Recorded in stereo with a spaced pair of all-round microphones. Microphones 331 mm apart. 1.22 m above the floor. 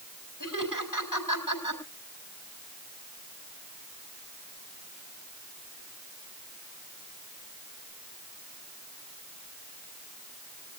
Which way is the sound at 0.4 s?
75° left (ahead or behind).